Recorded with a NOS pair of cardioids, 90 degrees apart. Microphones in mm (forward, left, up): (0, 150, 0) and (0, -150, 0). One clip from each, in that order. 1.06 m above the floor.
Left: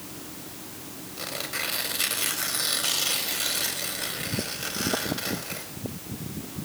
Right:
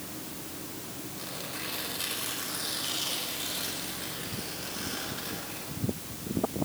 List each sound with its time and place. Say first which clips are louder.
1.2 s tearing paper: left 8 dB; 55° left, 5 m